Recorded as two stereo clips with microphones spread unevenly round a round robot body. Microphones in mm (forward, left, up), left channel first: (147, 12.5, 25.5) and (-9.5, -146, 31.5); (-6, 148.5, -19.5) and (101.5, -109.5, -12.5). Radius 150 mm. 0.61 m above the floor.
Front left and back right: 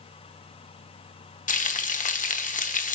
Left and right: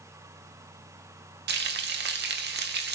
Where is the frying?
10° right, 1.2 m.